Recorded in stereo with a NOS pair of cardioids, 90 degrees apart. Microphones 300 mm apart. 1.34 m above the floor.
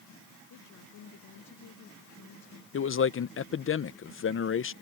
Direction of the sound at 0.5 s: 65° left.